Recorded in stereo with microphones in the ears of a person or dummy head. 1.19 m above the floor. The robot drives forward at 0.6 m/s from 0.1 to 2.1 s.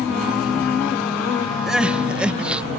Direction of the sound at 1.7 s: 5° right (ahead or behind).